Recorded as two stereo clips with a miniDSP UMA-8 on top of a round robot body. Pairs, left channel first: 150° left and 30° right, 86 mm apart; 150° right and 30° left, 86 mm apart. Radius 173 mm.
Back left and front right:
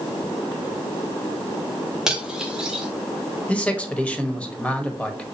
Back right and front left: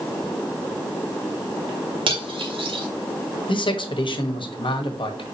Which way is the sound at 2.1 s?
55° left.